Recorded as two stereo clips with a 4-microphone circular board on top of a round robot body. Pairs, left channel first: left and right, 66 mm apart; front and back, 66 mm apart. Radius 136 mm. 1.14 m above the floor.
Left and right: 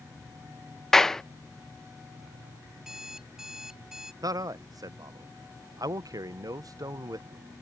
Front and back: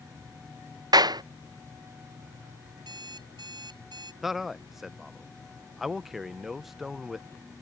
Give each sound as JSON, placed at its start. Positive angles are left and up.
{"t": 0.9, "sound": "a clap", "azimuth_deg": 175}
{"t": 2.8, "sound": "an alarm clock", "azimuth_deg": -175}
{"t": 4.2, "sound": "a man speaking", "azimuth_deg": -95}